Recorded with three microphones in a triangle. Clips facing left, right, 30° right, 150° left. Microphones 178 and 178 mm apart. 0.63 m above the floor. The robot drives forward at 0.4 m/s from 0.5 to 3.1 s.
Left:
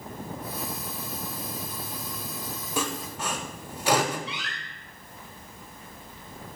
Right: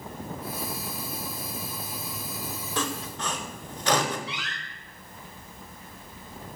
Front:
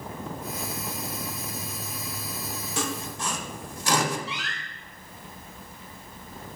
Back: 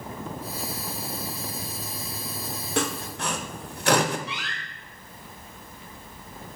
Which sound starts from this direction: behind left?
A door slam, at 4.3 s.